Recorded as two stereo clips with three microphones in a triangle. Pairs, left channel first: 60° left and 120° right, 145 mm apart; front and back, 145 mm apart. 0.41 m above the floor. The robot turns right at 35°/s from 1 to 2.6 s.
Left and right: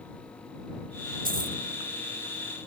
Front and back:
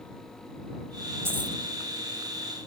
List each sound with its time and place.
1.2 s a dropped coin: 110° right; by 1.6 s 95° right